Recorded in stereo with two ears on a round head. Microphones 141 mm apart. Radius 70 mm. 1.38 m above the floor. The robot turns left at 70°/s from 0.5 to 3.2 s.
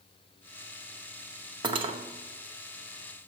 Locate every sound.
1.6 s cutlery clinking: 30° right (ahead or behind), 0.7 m; by 2.0 s 35° right (ahead or behind), 0.7 m